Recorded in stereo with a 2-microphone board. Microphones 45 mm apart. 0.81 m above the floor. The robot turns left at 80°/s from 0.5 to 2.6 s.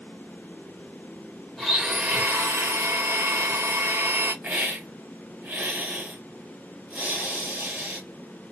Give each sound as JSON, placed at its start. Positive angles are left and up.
{"t": 1.6, "sound": "a blender", "azimuth_deg": 10, "distance_m": 1.2}
{"t": 4.4, "sound": "a hiss", "side_deg": -30, "distance_m": 1.5}